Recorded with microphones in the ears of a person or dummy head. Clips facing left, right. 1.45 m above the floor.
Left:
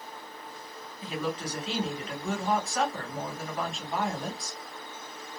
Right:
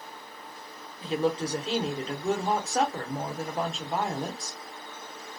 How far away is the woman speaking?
About 0.9 m.